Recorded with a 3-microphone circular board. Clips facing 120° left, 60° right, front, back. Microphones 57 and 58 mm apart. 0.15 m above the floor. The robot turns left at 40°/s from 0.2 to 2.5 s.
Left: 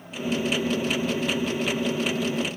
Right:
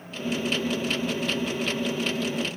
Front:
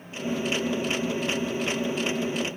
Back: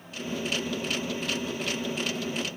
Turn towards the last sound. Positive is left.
No sound to turn to.